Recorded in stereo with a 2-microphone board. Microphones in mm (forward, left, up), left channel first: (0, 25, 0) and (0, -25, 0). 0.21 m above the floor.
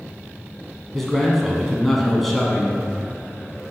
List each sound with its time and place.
0.9 s a man speaking: 5° left (ahead or behind), 1.4 m